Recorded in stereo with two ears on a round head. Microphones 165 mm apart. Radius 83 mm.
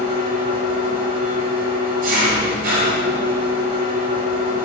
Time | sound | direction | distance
0.0 | an engine running | 55° right (ahead or behind) | 9 m